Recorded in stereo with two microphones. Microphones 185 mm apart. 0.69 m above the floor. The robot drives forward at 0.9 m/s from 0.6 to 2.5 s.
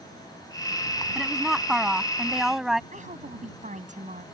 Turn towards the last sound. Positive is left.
turn(degrees=-40)  # may be behind; listen again after turning